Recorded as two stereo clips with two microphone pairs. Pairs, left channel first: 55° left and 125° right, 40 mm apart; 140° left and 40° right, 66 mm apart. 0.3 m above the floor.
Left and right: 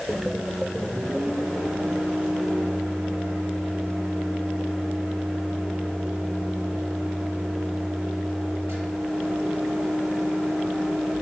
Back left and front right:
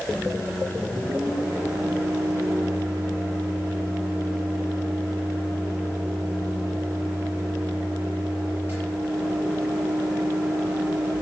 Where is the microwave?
100° right, 6.5 m.